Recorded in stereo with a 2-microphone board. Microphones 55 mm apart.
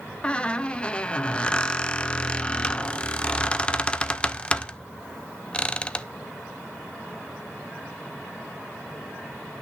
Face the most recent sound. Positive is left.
turn(degrees=20)  # may be behind; listen again after turning